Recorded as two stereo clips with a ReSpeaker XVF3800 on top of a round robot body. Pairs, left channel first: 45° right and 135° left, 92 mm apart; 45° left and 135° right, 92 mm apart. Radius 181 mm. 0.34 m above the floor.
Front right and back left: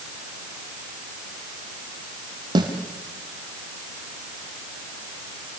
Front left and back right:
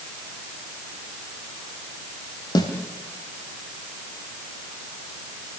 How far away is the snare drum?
About 3.5 m.